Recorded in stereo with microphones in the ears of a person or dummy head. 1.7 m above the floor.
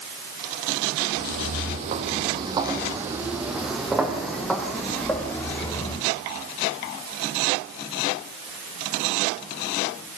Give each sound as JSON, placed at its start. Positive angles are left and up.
{"t": 1.2, "sound": "footsteps", "side_deg": -50, "distance_m": 3.0}